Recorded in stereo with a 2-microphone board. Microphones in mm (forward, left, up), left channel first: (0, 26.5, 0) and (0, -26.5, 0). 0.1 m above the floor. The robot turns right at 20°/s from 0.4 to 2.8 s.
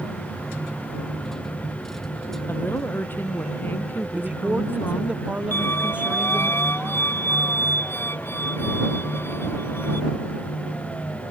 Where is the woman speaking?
45° left (ahead or behind); by 5.1 s 40° left (ahead or behind).